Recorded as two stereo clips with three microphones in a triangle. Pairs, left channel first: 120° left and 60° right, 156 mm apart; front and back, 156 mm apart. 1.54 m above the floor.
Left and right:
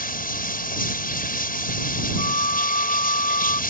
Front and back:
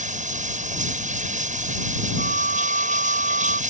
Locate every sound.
0.0 s running water: 145° left
2.2 s a flute: 165° left